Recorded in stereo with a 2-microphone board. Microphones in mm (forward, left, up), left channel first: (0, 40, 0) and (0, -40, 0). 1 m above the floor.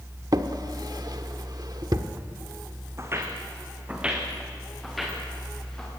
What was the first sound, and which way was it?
A drawer, 55° right (ahead or behind).